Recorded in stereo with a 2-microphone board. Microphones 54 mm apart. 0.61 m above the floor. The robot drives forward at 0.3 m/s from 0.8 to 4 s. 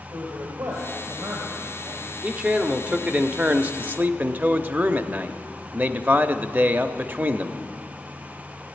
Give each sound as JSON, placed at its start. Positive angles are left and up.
{"t": 0.1, "sound": "a man speaking", "side_deg": -75, "distance_m": 2.5}
{"t": 2.2, "sound": "a man speaking", "side_deg": -25, "distance_m": 1.0}